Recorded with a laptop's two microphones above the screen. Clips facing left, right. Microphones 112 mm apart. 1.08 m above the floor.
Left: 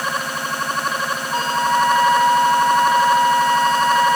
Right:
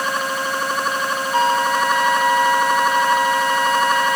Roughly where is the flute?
Left.